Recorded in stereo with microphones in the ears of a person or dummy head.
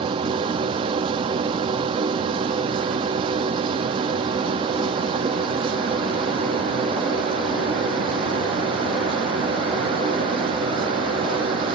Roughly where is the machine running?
Right.